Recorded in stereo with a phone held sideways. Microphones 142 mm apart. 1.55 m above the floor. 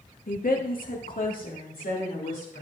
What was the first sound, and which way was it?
A woman speaking, 70° left (ahead or behind).